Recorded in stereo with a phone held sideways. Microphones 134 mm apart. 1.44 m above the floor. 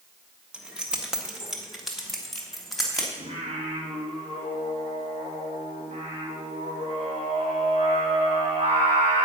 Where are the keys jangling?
10° right (ahead or behind), 1.5 m; by 3.1 s centre (ahead or behind), 3 m.